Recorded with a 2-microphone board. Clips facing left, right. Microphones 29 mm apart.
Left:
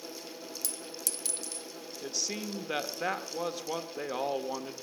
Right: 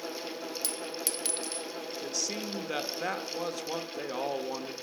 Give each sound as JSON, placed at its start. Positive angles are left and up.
{"t": 0.6, "sound": "a clink", "side_deg": -35, "distance_m": 0.7}
{"t": 2.0, "sound": "a man speaking", "side_deg": 10, "distance_m": 1.1}